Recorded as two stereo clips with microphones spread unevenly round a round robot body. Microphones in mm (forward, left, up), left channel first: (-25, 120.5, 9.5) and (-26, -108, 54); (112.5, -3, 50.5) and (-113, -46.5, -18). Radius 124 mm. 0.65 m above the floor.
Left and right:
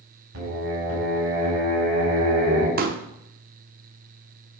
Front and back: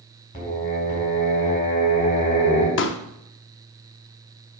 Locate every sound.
0.3 s singing: 55° right, 4 m
2.8 s a pop: 35° right, 0.8 m